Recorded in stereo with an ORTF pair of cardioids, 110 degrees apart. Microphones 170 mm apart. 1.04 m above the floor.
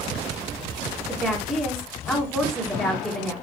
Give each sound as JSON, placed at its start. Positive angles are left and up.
{"t": 1.1, "sound": "a woman speaking", "azimuth_deg": 0, "distance_m": 2.0}